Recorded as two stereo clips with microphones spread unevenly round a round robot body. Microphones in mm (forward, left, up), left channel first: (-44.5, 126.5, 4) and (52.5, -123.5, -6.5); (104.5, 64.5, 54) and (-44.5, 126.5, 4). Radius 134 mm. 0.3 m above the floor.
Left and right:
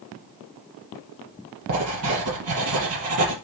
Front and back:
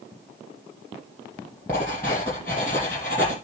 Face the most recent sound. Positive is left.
turn(degrees=-105)